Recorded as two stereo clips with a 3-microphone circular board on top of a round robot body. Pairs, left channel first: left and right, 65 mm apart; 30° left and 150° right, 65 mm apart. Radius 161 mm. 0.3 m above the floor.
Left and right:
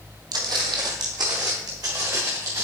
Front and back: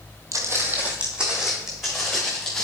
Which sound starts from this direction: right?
Footsteps, at 0.3 s.